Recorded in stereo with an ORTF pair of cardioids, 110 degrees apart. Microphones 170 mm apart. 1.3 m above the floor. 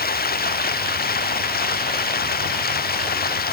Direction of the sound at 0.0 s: 65° left.